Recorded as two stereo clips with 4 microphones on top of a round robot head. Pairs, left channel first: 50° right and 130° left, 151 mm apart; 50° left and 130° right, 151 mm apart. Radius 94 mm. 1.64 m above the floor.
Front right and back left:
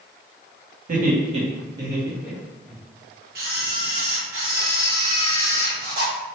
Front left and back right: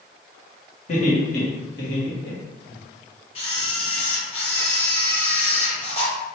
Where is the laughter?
95° left, 1.2 m; by 2.8 s 35° left, 1.5 m.